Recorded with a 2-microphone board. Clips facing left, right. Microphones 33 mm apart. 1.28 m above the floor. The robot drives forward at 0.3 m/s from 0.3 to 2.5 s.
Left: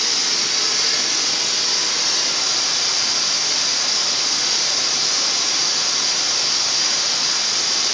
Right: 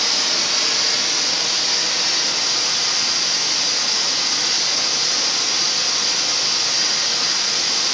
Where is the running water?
50° right (ahead or behind), 1.2 m; by 7.9 s 30° right (ahead or behind), 1.7 m.